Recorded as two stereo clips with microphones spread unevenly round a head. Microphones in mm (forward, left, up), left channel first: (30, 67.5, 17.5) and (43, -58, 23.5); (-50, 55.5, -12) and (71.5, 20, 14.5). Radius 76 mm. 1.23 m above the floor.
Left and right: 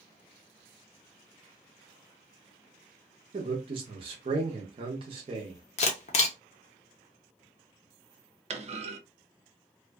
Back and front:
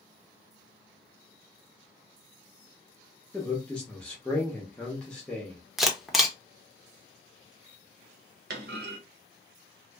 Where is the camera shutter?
80° left, 0.7 m.